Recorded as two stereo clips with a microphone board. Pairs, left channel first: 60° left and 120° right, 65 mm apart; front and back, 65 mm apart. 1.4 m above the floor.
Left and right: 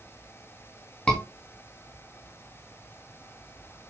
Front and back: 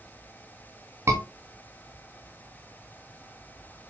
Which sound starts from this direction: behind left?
A scream, at 1.1 s.